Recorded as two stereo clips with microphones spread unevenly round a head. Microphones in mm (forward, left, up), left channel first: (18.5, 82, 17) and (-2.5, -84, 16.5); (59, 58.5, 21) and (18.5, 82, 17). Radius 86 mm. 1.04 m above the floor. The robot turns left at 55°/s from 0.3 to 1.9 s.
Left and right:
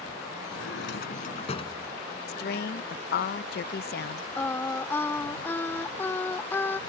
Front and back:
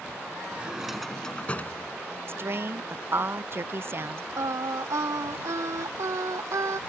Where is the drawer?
85° left; by 3.3 s 5° left.